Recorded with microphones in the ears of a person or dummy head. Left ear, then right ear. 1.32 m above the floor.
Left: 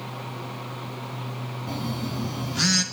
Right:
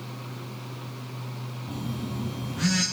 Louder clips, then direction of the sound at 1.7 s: Left 4 dB; 75° left (ahead or behind).